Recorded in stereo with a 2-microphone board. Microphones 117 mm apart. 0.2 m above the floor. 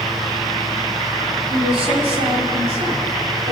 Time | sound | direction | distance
1.5 | a woman speaking | 50° right (ahead or behind) | 6.5 m